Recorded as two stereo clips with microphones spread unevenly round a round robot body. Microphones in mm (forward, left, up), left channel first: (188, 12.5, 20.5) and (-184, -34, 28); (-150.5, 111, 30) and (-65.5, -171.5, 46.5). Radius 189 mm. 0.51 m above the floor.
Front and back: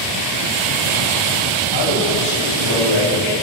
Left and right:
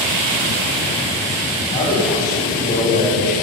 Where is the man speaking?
40° left, 3.5 m.